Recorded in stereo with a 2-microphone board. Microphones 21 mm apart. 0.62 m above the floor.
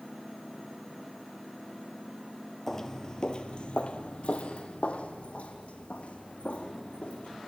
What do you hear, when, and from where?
2.7 s footsteps: 15° left (ahead or behind), 0.9 m; by 7.4 s 70° left (ahead or behind), 3.5 m